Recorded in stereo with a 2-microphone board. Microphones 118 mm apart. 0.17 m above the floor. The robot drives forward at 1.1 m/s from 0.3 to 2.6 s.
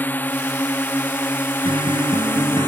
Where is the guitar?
45° right (ahead or behind); by 2.7 s 35° right (ahead or behind).